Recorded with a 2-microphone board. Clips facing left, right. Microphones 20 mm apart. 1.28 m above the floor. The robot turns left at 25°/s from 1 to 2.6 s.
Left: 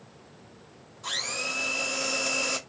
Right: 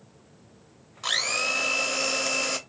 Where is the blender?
125° right, 0.6 m; by 2.6 s 165° right, 0.6 m.